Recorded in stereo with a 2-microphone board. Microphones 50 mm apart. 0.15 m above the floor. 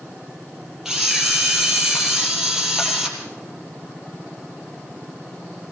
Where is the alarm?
No alarm in this recording.